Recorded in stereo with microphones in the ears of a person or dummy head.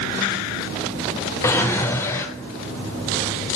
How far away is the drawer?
About 0.6 m.